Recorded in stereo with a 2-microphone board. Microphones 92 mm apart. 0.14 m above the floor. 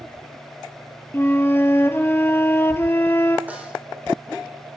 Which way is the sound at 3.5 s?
15° right (ahead or behind).